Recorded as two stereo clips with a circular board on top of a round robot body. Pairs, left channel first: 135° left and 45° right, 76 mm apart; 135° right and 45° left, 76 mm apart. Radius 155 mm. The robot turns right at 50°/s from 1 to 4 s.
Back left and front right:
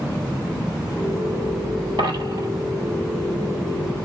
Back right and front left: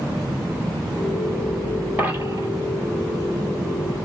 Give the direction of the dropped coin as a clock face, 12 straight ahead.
1 o'clock.